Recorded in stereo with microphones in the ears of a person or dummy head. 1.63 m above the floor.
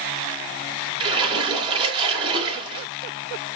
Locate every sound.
1.0 s a splash: 25° right (ahead or behind), 5 m